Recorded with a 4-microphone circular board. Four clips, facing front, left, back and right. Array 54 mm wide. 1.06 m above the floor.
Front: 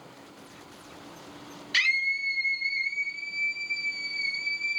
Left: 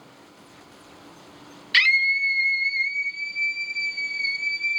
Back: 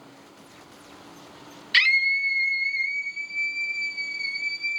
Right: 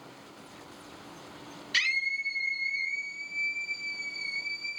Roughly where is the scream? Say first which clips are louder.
Left 10 dB, back 5 dB; behind left.